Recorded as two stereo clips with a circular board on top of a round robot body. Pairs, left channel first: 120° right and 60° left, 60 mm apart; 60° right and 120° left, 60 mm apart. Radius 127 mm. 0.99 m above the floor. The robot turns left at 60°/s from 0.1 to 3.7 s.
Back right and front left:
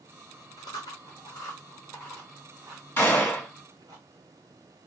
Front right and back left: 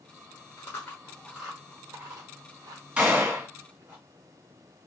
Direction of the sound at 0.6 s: 105° right.